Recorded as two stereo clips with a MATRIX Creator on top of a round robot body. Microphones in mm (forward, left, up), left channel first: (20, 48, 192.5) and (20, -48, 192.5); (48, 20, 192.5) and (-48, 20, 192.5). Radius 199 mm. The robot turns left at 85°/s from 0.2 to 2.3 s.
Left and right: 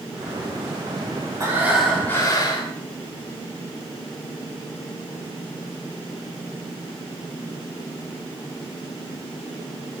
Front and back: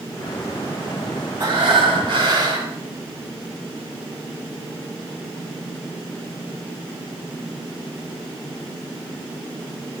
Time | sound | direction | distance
1.4 | breathing | 145° right | 7 m